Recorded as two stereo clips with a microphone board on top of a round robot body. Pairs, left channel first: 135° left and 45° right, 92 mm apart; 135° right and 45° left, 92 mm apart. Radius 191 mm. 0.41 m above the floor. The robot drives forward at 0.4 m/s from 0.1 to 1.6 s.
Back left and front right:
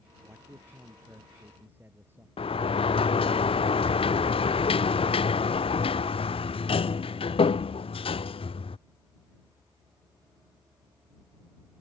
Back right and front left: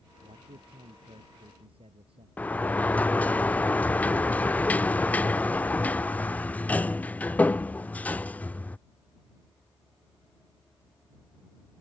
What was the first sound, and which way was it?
A man speaking, 20° left.